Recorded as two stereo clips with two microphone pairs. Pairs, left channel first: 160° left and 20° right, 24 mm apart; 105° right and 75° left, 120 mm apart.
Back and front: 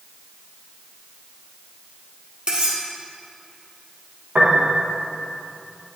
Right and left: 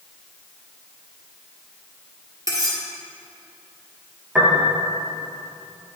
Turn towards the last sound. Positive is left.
turn(degrees=-5)